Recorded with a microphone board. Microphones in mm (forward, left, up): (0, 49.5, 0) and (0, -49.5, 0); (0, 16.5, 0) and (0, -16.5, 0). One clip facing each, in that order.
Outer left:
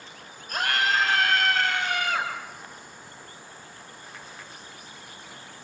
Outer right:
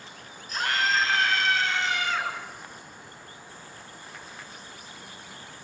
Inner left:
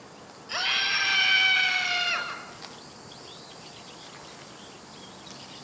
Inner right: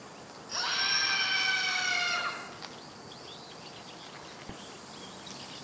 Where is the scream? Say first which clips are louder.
Outer left 1 dB, inner left 5 dB; 55° left (ahead or behind), 9.5 m; by 2.3 s 50° left (ahead or behind), 10.5 m.